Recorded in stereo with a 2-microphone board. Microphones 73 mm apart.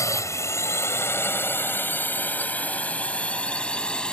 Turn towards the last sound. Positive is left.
turn(degrees=10)  # may be behind; listen again after turning